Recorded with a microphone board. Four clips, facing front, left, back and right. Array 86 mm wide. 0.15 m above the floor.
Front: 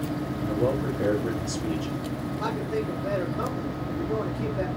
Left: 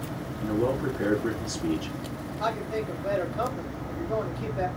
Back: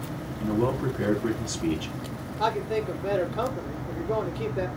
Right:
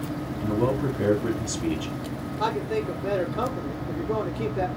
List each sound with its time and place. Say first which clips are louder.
0.4 s a man speaking: right 1 dB, back 1 dB; 140° right, 4 m
2.4 s a man speaking: right 3 dB, back 4 dB; 135° right, 3.5 m